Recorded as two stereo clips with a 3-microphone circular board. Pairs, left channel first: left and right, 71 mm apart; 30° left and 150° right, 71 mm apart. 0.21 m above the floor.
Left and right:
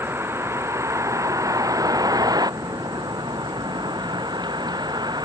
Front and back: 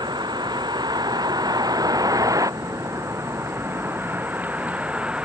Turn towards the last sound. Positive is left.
turn(degrees=-75)